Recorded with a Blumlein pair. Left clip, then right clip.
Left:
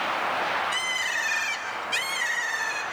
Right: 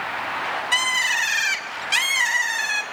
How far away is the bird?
About 2.0 m.